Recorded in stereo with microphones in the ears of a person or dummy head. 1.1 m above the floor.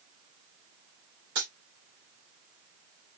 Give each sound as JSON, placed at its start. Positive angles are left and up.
{"t": 1.4, "sound": "a dropped coin", "side_deg": -55, "distance_m": 1.6}